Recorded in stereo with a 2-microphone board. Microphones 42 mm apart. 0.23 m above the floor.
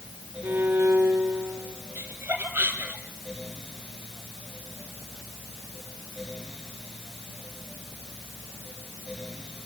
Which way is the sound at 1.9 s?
50° right (ahead or behind).